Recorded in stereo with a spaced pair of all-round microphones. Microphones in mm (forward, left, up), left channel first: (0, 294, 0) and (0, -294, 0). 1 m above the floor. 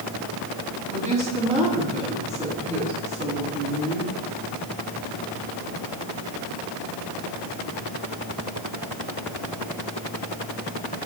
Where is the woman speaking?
10° right (ahead or behind), 8.5 m.